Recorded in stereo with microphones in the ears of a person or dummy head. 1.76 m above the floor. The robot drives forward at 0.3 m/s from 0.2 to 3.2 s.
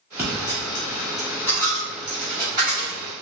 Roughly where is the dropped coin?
Centre.